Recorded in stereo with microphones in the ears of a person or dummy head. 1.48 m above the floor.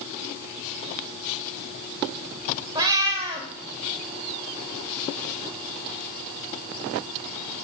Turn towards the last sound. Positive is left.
turn(degrees=-20)  # may be behind; listen again after turning